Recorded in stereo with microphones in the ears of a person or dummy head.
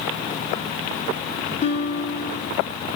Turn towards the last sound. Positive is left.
turn(degrees=25)  # may be behind; listen again after turning